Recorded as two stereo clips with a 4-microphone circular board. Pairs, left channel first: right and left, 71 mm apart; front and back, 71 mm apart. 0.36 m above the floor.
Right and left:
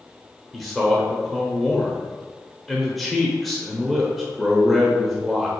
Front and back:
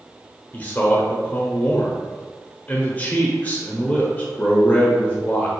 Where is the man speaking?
5° right, 1.0 m.